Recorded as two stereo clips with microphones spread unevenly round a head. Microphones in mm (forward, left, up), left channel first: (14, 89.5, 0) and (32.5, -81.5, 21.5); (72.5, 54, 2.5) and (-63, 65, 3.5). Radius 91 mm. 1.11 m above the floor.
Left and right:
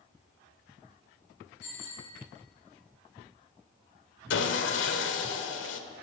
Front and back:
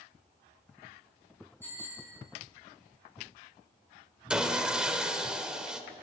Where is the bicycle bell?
70° left, 7 m.